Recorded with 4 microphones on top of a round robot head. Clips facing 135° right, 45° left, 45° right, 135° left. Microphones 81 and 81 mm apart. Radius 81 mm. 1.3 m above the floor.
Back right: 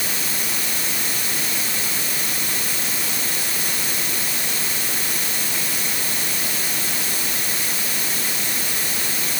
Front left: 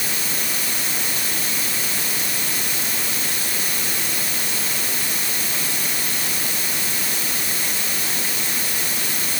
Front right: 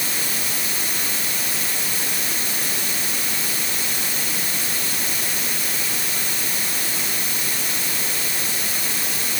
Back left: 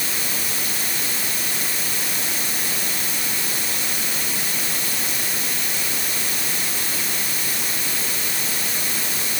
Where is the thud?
No thud in this recording.